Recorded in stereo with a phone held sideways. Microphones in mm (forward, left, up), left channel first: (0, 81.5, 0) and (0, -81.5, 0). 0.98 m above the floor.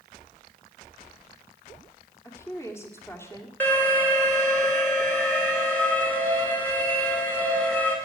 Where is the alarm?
10° left (ahead or behind), 2.5 m.